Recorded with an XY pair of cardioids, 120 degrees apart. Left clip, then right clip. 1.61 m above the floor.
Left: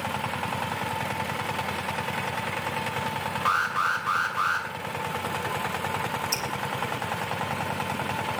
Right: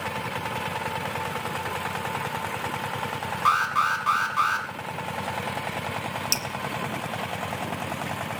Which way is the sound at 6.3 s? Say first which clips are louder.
Right 5 dB; 65° right.